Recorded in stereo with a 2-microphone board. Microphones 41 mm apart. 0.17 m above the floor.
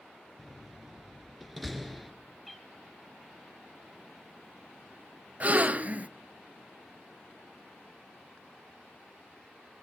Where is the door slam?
Centre (ahead or behind), 2.5 m.